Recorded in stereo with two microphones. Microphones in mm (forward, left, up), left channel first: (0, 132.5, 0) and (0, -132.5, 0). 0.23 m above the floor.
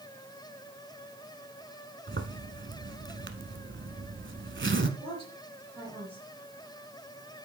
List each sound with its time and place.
2.1 s a zipper: 45° right (ahead or behind), 1.0 m
5.0 s a woman speaking: 20° right (ahead or behind), 4.5 m